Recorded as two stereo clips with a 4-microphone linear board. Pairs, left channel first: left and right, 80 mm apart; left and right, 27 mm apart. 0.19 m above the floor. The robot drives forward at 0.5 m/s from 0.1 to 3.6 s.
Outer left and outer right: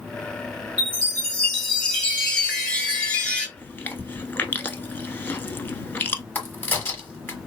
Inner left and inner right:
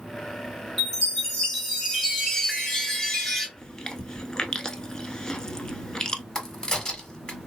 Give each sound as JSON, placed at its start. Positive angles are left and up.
{"t": 0.8, "sound": "a chime", "side_deg": 10, "distance_m": 2.0}
{"t": 3.6, "sound": "chewing", "side_deg": 25, "distance_m": 0.6}
{"t": 6.3, "sound": "a crack", "side_deg": 25, "distance_m": 1.4}